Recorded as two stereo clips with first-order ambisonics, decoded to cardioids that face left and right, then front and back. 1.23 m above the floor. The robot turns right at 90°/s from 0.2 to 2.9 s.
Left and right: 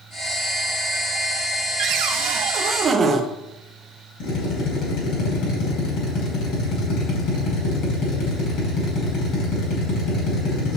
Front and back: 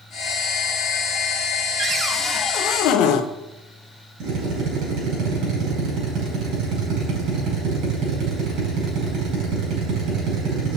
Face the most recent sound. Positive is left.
turn(degrees=145)